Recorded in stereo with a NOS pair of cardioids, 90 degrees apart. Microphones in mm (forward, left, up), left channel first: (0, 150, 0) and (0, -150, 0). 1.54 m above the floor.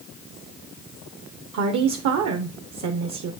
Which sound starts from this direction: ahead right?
A woman speaking, at 1.5 s.